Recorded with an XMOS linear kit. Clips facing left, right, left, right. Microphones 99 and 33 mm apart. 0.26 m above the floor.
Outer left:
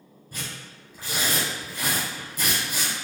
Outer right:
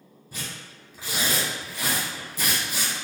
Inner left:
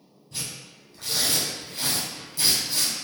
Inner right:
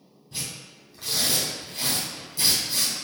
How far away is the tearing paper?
About 1.9 m.